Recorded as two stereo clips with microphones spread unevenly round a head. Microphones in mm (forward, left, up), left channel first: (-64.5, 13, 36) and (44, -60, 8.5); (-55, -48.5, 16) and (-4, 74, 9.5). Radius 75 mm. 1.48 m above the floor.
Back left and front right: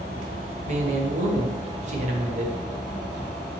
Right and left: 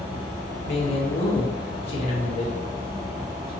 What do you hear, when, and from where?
0.7 s a man speaking: 60° right, 0.7 m